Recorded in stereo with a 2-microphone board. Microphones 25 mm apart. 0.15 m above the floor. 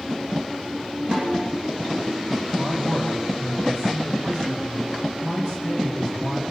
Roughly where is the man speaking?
Right.